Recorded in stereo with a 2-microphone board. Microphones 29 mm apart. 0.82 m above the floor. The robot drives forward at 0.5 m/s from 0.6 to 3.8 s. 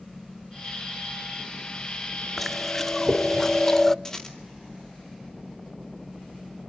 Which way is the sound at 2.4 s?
5° left (ahead or behind).